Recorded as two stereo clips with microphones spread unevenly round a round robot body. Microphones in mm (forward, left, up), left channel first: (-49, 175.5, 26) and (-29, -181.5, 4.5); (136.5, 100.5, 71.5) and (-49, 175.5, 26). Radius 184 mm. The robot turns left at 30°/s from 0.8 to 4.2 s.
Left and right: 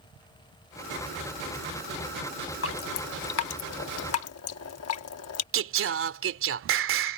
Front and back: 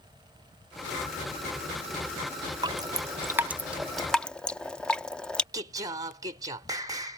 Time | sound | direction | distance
2.6 | dripping | 125° left | ?
5.5 | singing | 135° right | ?